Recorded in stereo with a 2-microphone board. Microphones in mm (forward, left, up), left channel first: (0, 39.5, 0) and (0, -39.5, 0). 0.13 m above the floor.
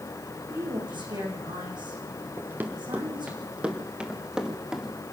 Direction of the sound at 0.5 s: 80° right.